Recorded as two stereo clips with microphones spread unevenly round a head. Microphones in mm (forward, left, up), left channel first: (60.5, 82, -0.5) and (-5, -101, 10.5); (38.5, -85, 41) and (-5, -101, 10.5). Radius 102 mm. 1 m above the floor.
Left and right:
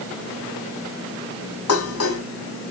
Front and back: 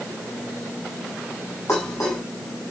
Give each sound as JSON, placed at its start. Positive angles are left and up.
{"t": 1.7, "sound": "dishes clattering", "azimuth_deg": 90, "distance_m": 5.5}